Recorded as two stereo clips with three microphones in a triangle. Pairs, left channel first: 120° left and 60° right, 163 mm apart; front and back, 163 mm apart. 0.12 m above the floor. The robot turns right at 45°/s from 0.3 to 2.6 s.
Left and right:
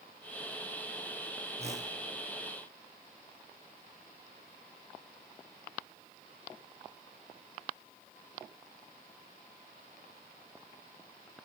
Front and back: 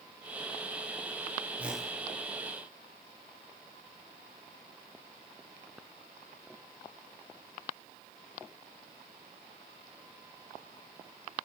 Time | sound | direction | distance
1.6 | a whoosh | 100° right | 1.5 m